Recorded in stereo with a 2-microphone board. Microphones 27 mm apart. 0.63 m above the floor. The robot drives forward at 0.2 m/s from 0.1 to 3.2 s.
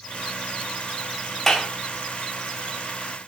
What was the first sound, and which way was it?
A clap, 10° left (ahead or behind).